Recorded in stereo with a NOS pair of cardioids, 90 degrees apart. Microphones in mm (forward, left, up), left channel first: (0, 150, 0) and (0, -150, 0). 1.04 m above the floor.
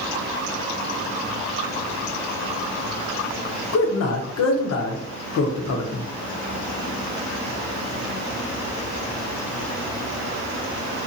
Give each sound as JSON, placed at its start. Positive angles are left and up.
{"t": 3.7, "sound": "a man speaking", "azimuth_deg": 60, "distance_m": 0.8}